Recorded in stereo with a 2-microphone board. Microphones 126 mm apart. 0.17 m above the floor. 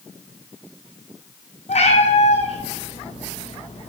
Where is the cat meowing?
60° left (ahead or behind), 1.4 m.